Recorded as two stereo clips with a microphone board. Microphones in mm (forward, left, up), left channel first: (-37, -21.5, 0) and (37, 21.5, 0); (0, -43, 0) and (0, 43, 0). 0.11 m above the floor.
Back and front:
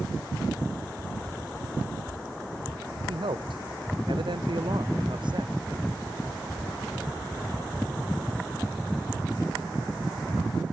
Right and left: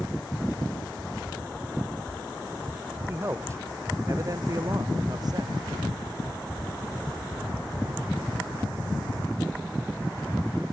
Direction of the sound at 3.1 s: 25° left.